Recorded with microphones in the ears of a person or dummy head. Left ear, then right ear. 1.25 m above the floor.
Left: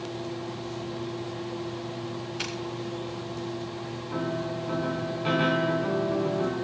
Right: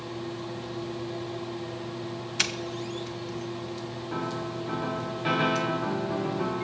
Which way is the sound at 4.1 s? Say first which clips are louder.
Left 2 dB; 20° right (ahead or behind).